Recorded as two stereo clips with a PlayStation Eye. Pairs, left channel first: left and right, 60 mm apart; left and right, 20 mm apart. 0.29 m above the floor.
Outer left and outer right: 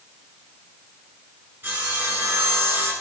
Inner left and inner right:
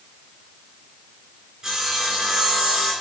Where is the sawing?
30° right (ahead or behind), 3 m.